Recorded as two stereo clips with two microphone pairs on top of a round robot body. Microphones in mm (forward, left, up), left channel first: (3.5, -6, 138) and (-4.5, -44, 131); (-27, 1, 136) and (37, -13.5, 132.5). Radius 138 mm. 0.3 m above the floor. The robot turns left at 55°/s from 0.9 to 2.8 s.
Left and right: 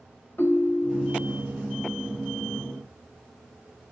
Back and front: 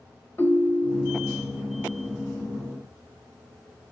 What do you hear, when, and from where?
0.4 s a ringtone: 115° left, 1.2 m; by 1.4 s 90° left, 1.2 m